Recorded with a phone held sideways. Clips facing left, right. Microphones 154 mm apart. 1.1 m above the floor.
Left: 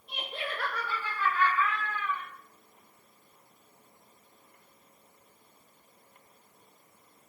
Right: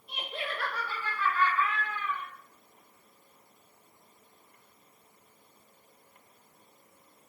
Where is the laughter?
50° left (ahead or behind), 1.5 m; by 2.2 s 15° right (ahead or behind), 1.8 m.